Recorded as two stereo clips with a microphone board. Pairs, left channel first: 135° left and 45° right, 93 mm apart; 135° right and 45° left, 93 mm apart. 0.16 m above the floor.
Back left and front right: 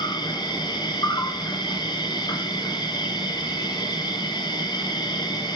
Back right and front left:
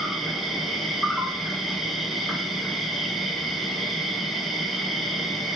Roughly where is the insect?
Behind left.